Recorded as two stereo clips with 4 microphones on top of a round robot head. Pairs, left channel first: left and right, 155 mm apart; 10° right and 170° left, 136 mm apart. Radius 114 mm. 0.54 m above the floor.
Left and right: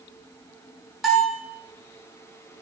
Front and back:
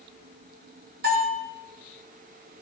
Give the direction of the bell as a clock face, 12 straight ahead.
6 o'clock.